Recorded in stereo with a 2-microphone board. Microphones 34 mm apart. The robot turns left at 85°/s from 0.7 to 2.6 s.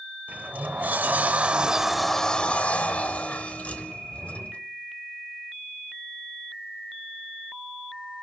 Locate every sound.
0.3 s a sliding door: 65° right, 0.8 m; by 4.6 s 130° left, 0.8 m